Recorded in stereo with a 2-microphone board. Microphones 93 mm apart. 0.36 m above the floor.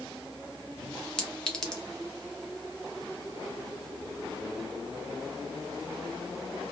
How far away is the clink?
About 0.6 m.